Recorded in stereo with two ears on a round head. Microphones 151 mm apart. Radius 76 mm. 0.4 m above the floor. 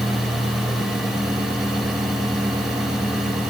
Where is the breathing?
I don't hear breathing.